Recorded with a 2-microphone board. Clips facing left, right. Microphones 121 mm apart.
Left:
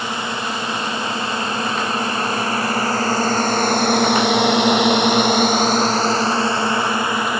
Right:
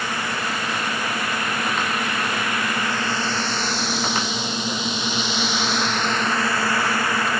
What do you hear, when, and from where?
0.0 s a drone: 20° left (ahead or behind); by 7.4 s 15° left (ahead or behind)